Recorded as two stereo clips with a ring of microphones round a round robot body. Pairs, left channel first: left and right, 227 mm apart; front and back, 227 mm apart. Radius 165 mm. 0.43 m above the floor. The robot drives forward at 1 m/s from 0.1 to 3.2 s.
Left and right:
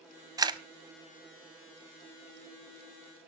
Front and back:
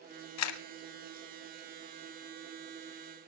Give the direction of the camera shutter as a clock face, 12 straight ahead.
12 o'clock.